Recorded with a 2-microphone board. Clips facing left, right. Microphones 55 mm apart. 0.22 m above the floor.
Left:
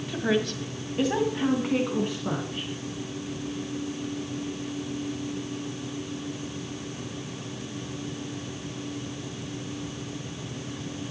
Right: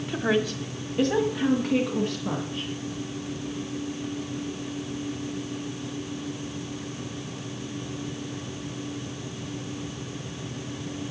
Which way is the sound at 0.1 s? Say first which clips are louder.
Right 1 dB; 10° right (ahead or behind).